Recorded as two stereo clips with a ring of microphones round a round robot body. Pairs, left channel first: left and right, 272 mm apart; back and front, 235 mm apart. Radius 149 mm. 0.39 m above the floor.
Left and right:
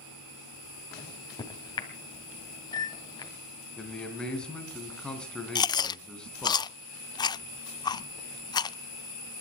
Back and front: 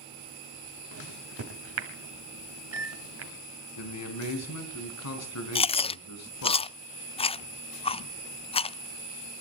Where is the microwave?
15° left, 2 m.